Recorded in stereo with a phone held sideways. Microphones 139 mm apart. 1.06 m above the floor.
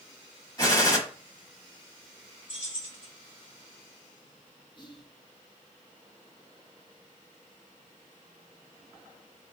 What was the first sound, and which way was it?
A gunshot, 30° left (ahead or behind).